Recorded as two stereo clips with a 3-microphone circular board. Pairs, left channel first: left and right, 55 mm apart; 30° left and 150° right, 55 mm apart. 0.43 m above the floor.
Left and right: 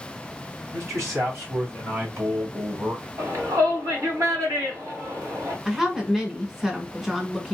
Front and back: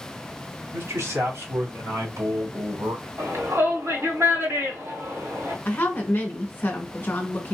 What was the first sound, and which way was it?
A man speaking, 115° right.